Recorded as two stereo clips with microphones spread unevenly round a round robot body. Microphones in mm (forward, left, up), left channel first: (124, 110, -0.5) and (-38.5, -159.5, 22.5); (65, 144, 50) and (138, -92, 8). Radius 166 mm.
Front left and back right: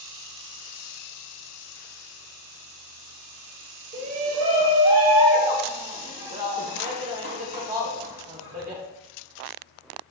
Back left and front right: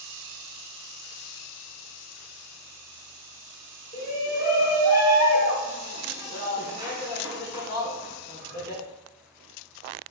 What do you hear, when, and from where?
3.9 s a shout: 170° left, 1.7 m